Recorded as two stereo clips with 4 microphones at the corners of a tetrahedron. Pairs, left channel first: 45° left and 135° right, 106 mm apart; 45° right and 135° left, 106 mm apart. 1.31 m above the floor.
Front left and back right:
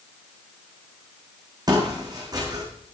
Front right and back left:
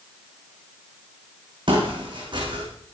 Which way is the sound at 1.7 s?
175° left.